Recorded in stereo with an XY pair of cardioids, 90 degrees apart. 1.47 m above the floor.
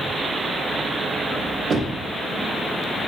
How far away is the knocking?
About 0.6 m.